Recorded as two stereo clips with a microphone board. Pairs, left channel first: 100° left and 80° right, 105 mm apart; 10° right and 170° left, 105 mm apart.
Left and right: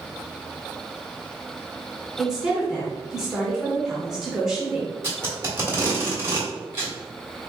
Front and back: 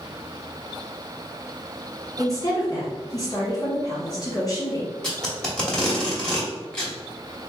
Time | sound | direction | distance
2.2 | a woman speaking | 5° left | 1.1 m
5.0 | tape being pulled | 85° right | 1.1 m